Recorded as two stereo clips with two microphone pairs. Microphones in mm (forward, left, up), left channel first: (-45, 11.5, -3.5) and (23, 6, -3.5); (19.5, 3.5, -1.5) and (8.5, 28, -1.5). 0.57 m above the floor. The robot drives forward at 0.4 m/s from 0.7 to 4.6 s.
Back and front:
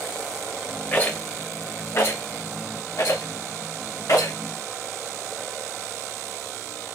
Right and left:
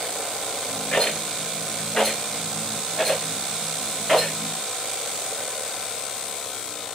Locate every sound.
0.9 s a rattle: 115° right, 0.9 m; by 4.4 s 155° right, 1.9 m